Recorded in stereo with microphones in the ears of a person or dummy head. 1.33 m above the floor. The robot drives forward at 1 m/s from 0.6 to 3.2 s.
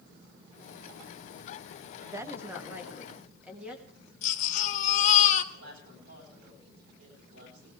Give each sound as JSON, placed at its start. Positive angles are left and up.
{"t": 2.1, "sound": "a woman speaking", "side_deg": -15, "distance_m": 0.7}
{"t": 4.2, "sound": "a baby crying", "side_deg": 45, "distance_m": 1.2}
{"t": 5.5, "sound": "a woman speaking", "side_deg": -90, "distance_m": 8.5}